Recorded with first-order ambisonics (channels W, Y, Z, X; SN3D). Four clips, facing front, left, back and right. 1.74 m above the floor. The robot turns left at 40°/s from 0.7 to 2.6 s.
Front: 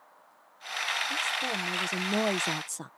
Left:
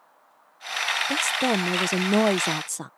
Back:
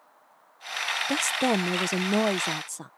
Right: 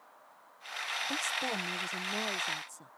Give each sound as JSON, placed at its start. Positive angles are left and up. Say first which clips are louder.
{"t": 1.1, "sound": "a woman speaking", "louder": "left 9 dB, back 5 dB", "azimuth_deg": 150}